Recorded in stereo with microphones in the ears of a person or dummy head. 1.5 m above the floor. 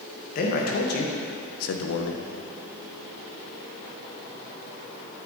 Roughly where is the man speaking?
Left.